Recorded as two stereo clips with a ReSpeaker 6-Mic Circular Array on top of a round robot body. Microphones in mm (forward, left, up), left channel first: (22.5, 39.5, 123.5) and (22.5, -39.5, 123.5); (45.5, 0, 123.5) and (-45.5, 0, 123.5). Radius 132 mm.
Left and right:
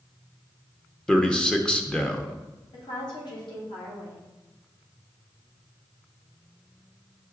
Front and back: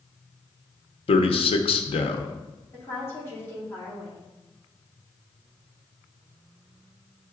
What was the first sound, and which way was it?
A man speaking, 10° left.